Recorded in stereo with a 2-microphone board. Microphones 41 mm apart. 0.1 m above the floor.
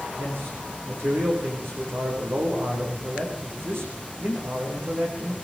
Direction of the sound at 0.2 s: 65° right (ahead or behind).